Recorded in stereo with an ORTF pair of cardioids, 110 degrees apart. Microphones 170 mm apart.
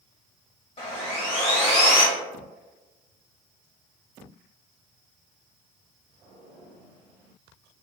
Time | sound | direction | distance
0.8 | sawing | 35° left | 1.2 m